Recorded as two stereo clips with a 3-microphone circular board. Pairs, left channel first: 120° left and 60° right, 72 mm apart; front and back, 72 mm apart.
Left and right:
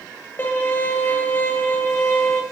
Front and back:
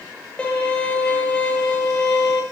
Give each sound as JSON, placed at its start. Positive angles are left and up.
{"t": 0.4, "sound": "a violin", "azimuth_deg": 70, "distance_m": 1.0}